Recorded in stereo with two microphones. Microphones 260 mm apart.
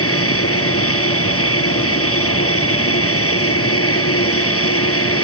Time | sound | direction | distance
0.0 | an aircraft | 60° left (ahead or behind) | ?